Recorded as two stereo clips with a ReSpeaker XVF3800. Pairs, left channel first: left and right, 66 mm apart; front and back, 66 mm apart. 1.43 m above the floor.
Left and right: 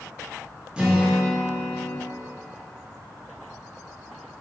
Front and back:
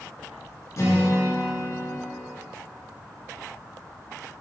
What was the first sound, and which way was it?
A guitar, 20° right.